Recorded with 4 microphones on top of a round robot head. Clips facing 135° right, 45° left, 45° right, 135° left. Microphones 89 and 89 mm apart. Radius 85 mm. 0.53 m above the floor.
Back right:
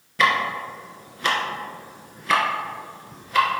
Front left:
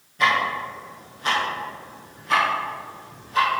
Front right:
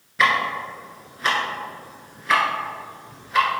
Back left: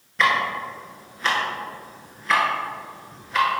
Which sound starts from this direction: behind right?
Ticking, at 0.2 s.